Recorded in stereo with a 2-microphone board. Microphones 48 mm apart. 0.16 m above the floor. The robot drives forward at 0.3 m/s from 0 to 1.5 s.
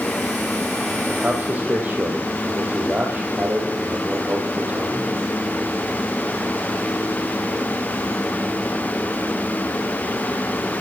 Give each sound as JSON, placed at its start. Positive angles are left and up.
{"t": 1.1, "sound": "a man speaking", "side_deg": -35, "distance_m": 4.5}